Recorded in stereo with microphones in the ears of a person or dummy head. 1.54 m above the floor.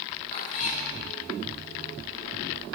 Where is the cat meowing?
50° left (ahead or behind), 1.7 m.